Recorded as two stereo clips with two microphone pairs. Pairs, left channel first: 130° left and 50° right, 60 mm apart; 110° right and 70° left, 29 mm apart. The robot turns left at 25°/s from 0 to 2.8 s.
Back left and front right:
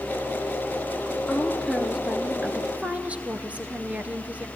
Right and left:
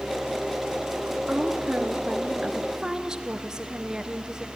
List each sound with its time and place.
1.3 s a woman speaking: 50° left, 1.5 m; by 4.5 s 10° left, 1.5 m